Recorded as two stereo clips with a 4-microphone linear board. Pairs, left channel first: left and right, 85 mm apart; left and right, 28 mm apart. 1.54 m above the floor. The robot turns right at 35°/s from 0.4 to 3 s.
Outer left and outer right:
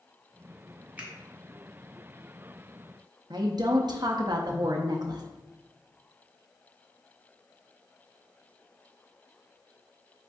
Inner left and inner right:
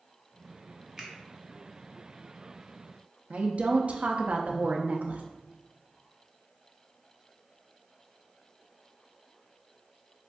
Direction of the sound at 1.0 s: 20° right (ahead or behind).